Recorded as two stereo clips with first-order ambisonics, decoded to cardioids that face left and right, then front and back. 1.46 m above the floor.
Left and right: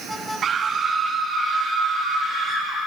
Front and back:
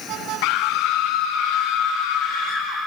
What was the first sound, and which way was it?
A scream, 30° right.